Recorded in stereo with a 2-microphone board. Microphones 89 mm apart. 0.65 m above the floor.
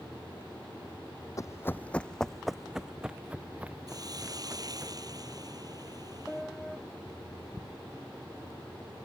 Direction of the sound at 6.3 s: 10° left (ahead or behind).